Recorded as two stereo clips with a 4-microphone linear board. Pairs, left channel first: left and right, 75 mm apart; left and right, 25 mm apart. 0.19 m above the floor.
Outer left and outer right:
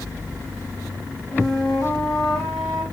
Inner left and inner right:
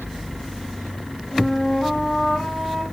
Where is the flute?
Centre (ahead or behind), 3 m.